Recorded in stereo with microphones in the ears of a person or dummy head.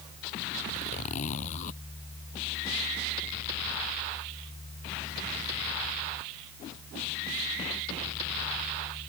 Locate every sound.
0.7 s a zipper: 40° left (ahead or behind)